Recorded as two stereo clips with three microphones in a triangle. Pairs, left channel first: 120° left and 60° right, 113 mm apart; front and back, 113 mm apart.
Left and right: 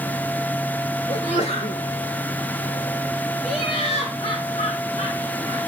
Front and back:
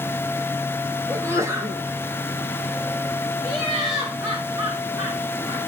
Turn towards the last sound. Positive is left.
turn(degrees=125)